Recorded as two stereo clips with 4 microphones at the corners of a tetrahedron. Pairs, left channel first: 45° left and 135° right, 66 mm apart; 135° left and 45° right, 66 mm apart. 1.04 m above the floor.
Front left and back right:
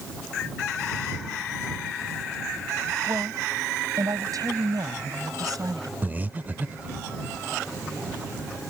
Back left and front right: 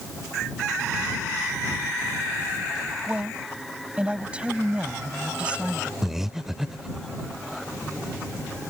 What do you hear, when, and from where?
3.1 s a woman speaking: 115° right
6.0 s breathing: 125° right